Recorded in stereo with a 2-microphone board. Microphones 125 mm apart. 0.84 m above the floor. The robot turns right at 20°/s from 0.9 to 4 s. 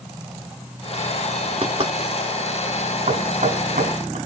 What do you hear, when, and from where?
1.6 s knocking: 45° right (ahead or behind), 2.5 m; by 1.9 s 50° right (ahead or behind), 2.5 m
3.1 s knocking: 65° right (ahead or behind), 5 m; by 4.2 s 85° right, 5 m